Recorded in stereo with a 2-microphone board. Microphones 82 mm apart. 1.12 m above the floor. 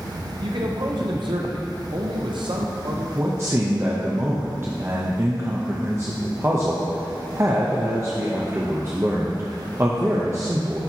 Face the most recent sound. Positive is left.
turn(degrees=-30)  # may be behind; listen again after turning